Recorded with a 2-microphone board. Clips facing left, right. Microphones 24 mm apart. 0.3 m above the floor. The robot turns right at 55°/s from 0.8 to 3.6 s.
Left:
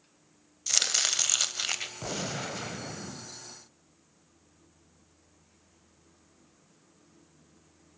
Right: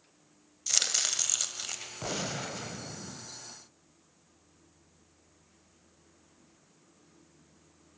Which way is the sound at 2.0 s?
10° right.